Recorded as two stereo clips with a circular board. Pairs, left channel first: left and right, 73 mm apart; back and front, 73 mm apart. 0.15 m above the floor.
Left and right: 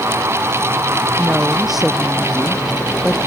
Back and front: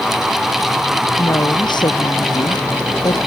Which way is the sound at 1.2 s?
Straight behind.